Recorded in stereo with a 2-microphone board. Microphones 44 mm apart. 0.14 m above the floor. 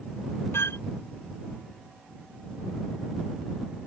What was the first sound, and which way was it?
A flute, 70° left (ahead or behind).